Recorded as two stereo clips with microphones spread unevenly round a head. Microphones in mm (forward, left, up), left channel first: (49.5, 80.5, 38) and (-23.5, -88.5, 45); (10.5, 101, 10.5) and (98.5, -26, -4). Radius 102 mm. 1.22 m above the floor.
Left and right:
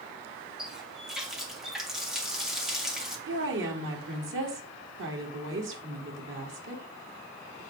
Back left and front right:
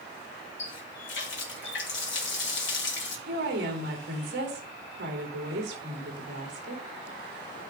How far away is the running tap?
About 1.6 m.